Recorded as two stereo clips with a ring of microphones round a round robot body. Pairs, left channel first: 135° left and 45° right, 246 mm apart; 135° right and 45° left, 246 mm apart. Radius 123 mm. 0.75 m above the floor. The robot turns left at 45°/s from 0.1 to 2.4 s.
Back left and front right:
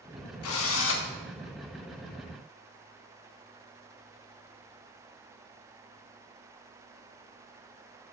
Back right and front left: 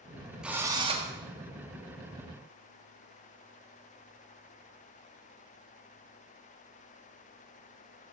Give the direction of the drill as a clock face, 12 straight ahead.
8 o'clock.